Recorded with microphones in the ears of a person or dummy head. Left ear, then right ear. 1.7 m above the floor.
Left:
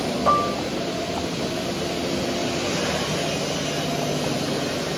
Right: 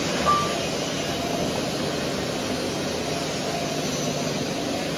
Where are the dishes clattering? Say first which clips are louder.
Left 2 dB; 25° left (ahead or behind).